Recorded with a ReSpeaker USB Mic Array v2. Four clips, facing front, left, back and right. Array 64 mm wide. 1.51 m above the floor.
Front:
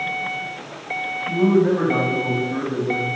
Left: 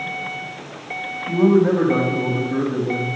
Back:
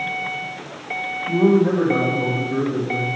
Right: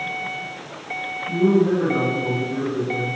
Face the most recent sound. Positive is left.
turn(degrees=50)